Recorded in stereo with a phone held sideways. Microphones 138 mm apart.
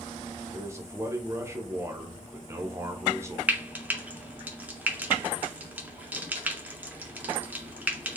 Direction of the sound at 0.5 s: 20° right (ahead or behind).